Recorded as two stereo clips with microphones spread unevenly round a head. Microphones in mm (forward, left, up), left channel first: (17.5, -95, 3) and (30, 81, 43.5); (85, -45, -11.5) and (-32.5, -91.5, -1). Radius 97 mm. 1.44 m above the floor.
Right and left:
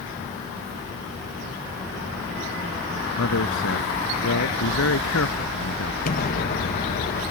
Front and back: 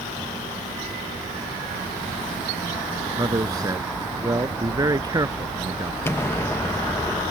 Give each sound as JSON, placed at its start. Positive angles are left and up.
{"t": 3.2, "sound": "a man speaking", "azimuth_deg": -95}
{"t": 6.0, "sound": "an explosion", "azimuth_deg": -50}